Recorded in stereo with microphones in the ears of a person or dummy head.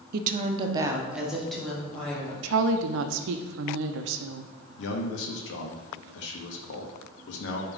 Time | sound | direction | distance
0.1 | a woman speaking | 60° right (ahead or behind) | 0.6 m
2.4 | a woman speaking | 75° right (ahead or behind) | 0.6 m
4.8 | a man speaking | 70° left (ahead or behind) | 1.1 m